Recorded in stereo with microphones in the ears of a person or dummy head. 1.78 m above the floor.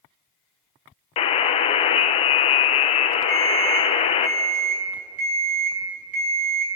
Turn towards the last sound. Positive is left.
turn(degrees=-65)  # may be behind; listen again after turning